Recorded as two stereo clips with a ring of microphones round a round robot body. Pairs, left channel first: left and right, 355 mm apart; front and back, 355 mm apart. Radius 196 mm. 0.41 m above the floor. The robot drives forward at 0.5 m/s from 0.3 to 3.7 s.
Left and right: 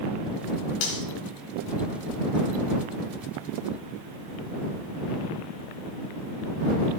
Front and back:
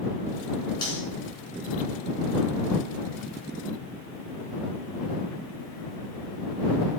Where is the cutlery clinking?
80° left, 2.5 m.